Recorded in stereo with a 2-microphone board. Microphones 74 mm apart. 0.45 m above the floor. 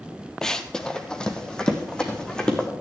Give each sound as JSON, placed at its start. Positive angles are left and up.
{"t": 0.4, "sound": "running footsteps", "side_deg": 5, "distance_m": 0.7}